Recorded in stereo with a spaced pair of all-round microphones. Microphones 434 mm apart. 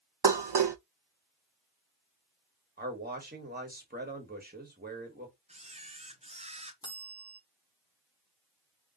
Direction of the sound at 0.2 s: 65° right (ahead or behind).